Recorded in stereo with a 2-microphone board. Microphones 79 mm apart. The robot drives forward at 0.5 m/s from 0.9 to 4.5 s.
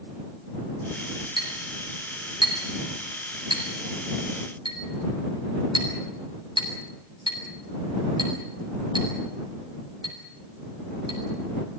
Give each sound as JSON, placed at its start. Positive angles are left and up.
{"t": 1.4, "sound": "a clink", "side_deg": -85, "distance_m": 7.0}